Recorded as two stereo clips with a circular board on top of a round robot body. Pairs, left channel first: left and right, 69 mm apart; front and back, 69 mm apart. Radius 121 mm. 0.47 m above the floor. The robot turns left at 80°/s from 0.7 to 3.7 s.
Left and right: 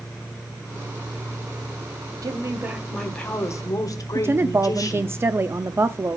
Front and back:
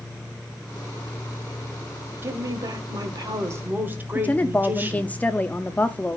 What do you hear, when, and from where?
2.2 s a woman speaking: 125° right, 2 m; by 5.2 s 120° left, 2 m
4.2 s a woman speaking: 60° right, 0.8 m